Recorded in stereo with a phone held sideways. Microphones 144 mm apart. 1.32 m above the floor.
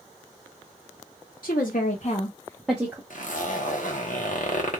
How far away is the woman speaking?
About 1.1 m.